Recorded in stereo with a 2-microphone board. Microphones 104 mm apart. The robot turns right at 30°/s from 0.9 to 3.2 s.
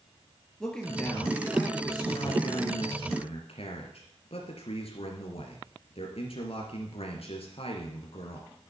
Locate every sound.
0.6 s a man speaking: 5° left, 3 m; by 8.5 s 75° left, 3 m